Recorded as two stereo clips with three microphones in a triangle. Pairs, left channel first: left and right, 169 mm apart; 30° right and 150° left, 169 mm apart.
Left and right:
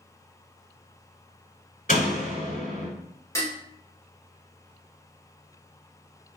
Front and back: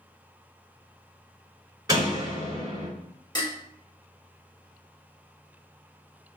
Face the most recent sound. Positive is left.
turn(degrees=25)